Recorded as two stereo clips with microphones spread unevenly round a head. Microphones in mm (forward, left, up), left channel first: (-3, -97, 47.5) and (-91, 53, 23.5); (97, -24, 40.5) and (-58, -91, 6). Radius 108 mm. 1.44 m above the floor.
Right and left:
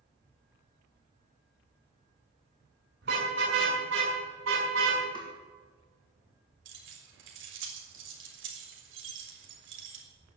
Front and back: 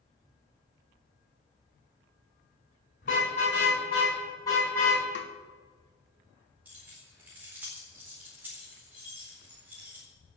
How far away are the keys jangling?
About 4 m.